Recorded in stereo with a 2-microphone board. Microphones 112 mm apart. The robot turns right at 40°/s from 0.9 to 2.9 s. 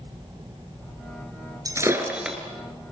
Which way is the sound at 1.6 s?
30° right (ahead or behind).